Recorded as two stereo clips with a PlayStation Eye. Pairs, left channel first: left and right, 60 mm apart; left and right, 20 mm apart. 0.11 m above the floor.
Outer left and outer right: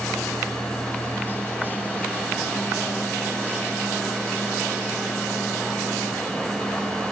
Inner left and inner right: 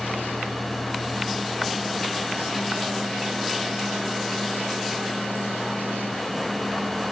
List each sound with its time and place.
Only background noise.